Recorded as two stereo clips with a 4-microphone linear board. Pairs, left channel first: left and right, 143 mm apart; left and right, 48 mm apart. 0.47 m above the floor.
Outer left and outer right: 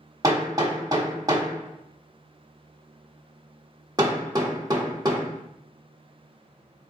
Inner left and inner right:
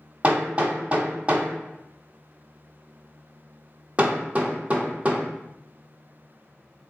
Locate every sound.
0.2 s hammering: 25° right (ahead or behind), 1.1 m